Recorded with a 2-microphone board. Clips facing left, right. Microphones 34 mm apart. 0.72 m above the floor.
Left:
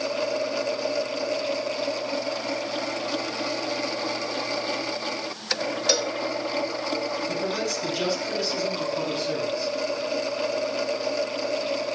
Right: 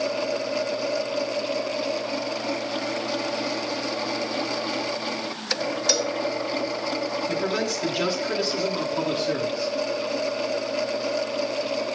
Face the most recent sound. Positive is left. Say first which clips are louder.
# right 2 dB
turn(degrees=-15)  # may be behind; listen again after turning